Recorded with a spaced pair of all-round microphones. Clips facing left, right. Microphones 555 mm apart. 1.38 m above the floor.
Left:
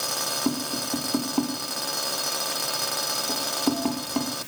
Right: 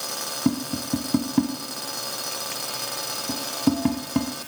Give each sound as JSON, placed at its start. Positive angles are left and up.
{"t": 0.5, "sound": "tapping", "side_deg": -40, "distance_m": 1.2}